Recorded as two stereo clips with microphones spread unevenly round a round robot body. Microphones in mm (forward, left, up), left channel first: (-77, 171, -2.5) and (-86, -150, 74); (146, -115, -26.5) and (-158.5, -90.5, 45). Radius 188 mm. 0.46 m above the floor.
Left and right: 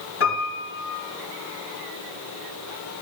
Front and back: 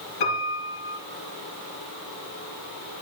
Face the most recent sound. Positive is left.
turn(degrees=30)